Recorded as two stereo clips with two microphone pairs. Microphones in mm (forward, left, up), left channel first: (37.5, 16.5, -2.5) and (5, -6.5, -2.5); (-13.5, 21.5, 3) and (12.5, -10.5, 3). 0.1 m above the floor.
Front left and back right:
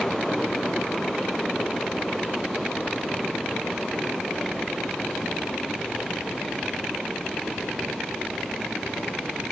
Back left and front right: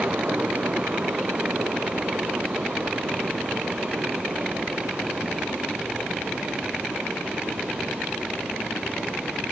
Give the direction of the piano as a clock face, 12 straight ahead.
I don't hear a piano.